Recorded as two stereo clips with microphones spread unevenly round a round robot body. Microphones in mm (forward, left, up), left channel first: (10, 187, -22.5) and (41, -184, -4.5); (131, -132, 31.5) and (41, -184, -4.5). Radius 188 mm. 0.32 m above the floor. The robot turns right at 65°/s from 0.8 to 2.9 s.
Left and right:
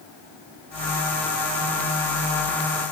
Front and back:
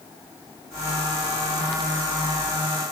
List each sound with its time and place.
Only background noise.